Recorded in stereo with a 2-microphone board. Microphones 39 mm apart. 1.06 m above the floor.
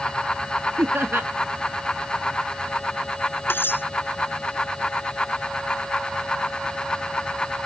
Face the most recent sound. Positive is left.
turn(degrees=60)  # may be behind; listen again after turning